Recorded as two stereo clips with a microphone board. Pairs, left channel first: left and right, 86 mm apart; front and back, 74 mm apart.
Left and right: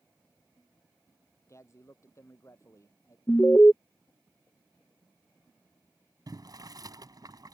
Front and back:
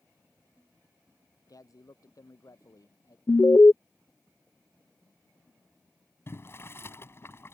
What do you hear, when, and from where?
1.5 s a man speaking: 35° left
3.3 s an alarm: 40° left
6.3 s boiling: 55° right